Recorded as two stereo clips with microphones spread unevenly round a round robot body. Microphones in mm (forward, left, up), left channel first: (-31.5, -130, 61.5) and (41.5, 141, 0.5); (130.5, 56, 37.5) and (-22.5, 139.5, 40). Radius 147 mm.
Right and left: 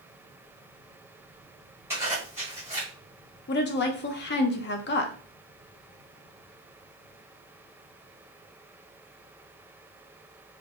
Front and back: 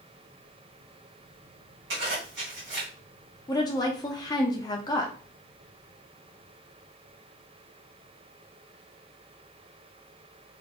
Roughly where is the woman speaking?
Ahead right.